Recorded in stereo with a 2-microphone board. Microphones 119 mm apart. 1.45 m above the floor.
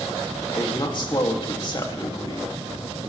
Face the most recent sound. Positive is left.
turn(degrees=40)  # may be behind; listen again after turning